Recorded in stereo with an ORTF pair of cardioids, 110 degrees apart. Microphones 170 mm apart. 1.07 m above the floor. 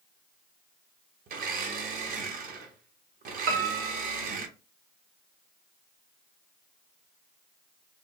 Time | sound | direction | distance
1.3 | a blender | 55° right | 0.7 m
3.5 | a piano | 65° right | 0.7 m